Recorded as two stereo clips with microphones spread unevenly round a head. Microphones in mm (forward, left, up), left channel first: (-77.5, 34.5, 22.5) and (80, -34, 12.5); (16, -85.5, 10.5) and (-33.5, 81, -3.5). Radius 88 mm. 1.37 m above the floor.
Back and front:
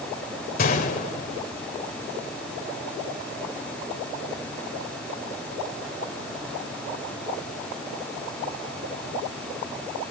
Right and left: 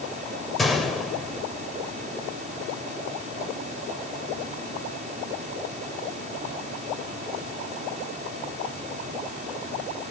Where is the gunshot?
160° right, 3 m.